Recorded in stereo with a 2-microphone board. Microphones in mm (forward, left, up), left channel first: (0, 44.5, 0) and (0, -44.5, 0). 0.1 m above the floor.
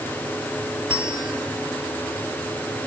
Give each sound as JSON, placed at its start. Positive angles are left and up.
{"t": 0.9, "sound": "a bell", "side_deg": -65, "distance_m": 1.9}